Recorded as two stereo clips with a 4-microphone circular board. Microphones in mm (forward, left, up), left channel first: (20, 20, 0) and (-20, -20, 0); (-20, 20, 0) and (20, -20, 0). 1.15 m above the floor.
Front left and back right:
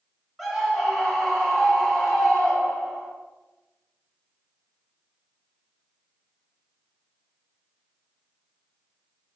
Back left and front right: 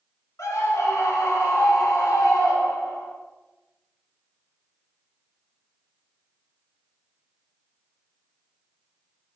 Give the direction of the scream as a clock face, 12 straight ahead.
7 o'clock.